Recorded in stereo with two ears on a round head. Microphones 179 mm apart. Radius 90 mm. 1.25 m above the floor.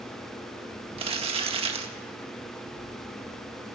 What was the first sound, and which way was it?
Crumpling, 30° right (ahead or behind).